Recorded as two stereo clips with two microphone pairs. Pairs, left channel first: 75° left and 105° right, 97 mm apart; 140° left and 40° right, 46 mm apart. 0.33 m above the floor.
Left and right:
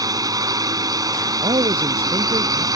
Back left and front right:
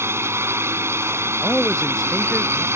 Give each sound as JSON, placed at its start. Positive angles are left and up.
{"t": 0.0, "sound": "a drone", "azimuth_deg": -55}
{"t": 1.4, "sound": "a man speaking", "azimuth_deg": -130}